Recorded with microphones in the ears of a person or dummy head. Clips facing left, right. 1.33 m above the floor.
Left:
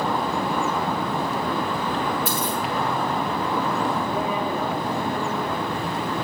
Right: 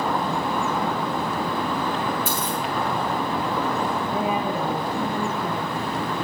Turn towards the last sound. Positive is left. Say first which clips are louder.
# right 1 dB
turn(degrees=-75)  # may be behind; listen again after turning